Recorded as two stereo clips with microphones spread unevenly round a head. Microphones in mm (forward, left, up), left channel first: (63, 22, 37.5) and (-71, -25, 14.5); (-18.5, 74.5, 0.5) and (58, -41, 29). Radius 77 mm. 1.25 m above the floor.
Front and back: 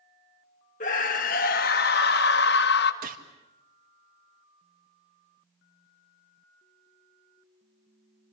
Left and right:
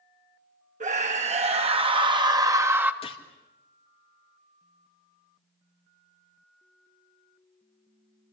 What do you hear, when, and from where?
0.8 s a scream: 20° right, 2.5 m; by 2.9 s 25° left, 1.5 m
3.0 s a gunshot: 175° left, 1.9 m